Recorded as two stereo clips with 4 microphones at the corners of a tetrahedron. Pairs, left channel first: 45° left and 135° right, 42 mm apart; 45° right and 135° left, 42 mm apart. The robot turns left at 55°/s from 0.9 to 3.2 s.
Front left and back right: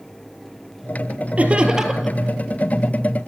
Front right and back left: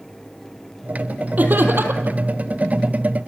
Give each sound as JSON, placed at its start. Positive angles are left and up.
{"t": 1.4, "sound": "laughter", "azimuth_deg": 175, "distance_m": 2.5}